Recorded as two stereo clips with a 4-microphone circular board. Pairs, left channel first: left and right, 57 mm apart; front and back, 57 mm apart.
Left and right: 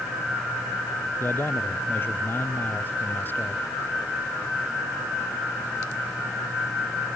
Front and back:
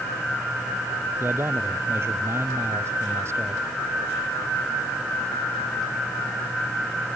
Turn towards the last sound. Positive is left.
turn(degrees=145)